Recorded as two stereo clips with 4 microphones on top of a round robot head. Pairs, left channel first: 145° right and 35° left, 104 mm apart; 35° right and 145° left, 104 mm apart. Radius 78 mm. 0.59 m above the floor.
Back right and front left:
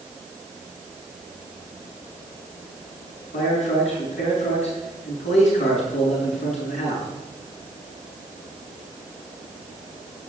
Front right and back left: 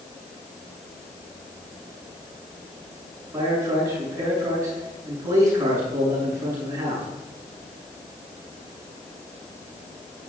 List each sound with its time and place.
3.3 s a man speaking: 155° right, 8 m